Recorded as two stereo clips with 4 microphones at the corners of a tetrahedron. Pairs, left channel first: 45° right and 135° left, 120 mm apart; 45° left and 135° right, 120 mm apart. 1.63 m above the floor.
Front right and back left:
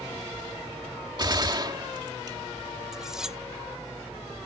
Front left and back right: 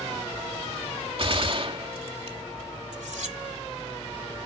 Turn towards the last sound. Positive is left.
turn(degrees=-140)